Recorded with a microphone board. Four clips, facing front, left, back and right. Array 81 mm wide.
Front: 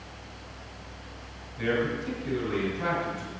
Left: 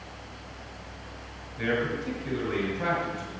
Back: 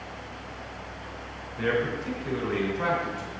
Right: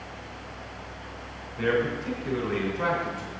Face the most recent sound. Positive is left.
turn(degrees=-125)